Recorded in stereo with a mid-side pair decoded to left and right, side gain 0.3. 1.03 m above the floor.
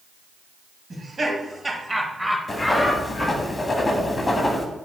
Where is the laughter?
50° right, 1.4 m; by 3.5 s 65° left, 1.0 m.